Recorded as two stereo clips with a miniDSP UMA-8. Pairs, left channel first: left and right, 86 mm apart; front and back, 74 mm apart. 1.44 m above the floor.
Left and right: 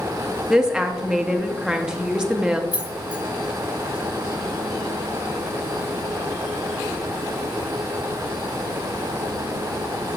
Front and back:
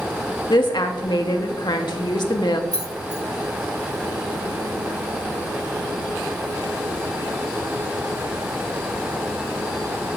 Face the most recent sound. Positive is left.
turn(degrees=-160)